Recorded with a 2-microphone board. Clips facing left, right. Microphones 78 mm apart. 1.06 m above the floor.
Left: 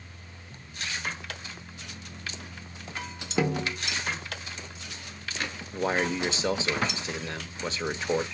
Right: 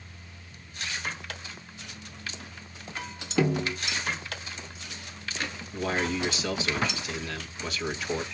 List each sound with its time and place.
3.4 s a snare drum: 20° left (ahead or behind), 1.7 m
5.7 s a man speaking: 30° left (ahead or behind), 1.3 m